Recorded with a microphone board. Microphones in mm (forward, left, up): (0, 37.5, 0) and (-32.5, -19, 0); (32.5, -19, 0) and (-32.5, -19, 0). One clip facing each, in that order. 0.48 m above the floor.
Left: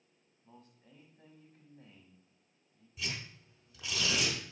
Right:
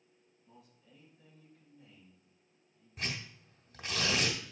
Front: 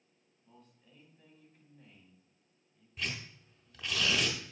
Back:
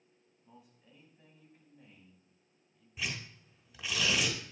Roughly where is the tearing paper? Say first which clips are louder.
Right 2 dB, even; right.